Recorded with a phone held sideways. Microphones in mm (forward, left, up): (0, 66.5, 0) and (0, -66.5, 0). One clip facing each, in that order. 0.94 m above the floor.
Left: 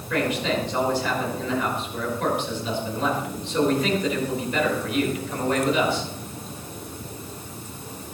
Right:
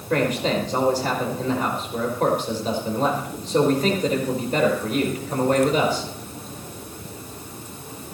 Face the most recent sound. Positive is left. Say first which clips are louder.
# right 3 dB
turn(degrees=-45)  # may be behind; listen again after turning